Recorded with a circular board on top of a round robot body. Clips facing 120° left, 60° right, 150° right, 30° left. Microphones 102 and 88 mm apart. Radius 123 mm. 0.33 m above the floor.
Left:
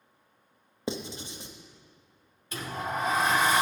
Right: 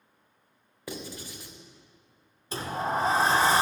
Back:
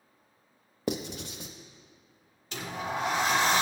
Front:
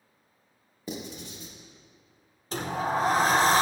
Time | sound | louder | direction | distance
0.9 | writing | left 4 dB, back 5 dB | 175° right | 0.5 m
2.5 | a sliding door | right 4 dB, front 6 dB | 10° right | 0.6 m